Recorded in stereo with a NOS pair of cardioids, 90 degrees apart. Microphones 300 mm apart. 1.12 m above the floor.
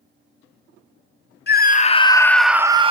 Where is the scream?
35° left, 1.1 m; by 2.9 s 20° right, 0.9 m.